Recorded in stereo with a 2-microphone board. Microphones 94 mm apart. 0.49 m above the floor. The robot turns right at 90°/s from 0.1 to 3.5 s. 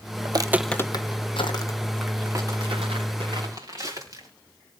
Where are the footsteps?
55° right (ahead or behind), 0.8 m; by 4.3 s 40° right (ahead or behind), 5 m.